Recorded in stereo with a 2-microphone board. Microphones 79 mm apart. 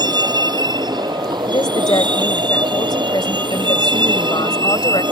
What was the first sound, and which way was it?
A vehicle, 60° right (ahead or behind).